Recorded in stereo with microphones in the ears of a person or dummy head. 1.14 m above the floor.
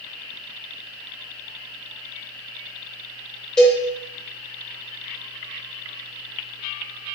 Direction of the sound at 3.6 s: 5° left (ahead or behind).